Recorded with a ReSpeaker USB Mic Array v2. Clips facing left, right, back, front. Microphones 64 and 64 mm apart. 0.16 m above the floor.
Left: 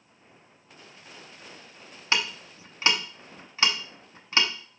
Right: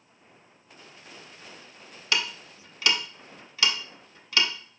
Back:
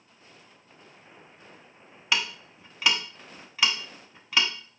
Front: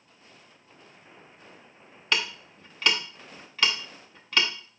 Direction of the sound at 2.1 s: 105° left.